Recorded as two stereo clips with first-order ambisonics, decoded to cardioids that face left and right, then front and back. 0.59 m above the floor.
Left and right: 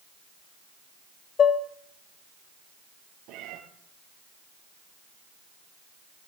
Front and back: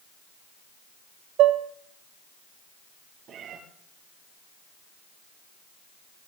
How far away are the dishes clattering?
About 1.3 m.